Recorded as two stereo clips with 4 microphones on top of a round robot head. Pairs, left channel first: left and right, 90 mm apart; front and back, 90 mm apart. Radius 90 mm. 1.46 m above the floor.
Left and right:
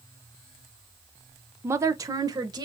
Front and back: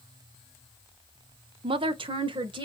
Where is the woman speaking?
155° right, 0.6 m; by 2.7 s 140° right, 1.4 m.